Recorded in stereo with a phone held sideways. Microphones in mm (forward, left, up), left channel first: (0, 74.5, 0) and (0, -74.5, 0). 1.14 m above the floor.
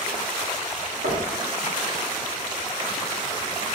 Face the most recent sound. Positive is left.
turn(degrees=-70)  # may be behind; listen again after turning